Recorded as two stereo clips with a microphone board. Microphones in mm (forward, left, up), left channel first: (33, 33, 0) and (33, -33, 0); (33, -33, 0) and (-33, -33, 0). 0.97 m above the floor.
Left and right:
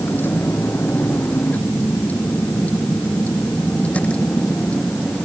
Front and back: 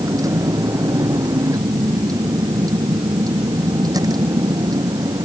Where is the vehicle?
150° left; by 5.2 s 165° left.